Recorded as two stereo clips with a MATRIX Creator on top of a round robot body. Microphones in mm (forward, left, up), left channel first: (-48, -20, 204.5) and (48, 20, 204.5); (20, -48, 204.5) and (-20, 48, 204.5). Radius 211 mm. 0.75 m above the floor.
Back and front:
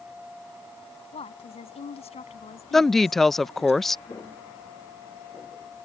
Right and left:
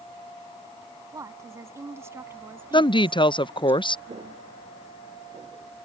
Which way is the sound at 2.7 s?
70° right.